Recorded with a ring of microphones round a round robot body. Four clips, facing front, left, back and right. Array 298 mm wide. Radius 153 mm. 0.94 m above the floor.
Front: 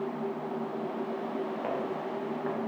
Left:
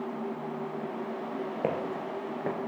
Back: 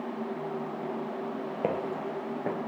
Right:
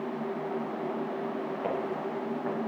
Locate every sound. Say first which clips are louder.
1.6 s footsteps: left 1 dB, back 2 dB; 135° left, 3 m